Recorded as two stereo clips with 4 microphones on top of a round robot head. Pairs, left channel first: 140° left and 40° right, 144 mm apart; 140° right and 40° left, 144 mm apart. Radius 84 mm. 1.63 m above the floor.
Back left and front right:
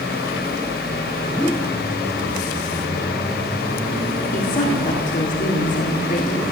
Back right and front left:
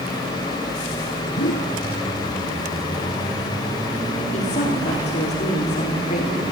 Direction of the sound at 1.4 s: 135° right.